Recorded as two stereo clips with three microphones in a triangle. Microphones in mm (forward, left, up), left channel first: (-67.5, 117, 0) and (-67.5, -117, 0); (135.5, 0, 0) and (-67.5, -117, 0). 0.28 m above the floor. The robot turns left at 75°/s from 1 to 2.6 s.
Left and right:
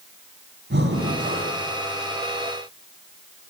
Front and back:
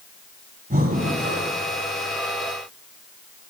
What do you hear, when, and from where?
0.7 s breathing: 105° right, 1.9 m; by 1.6 s 150° right, 1.9 m